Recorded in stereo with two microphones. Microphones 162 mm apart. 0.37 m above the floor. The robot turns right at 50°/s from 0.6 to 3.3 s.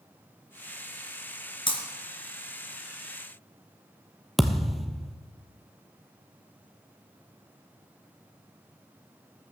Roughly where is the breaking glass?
Left.